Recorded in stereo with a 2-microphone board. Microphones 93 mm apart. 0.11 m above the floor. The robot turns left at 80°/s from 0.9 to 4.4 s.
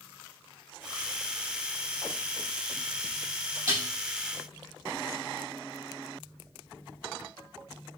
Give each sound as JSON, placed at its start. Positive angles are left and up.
{"t": 3.7, "sound": "dishes clattering", "side_deg": -20, "distance_m": 2.0}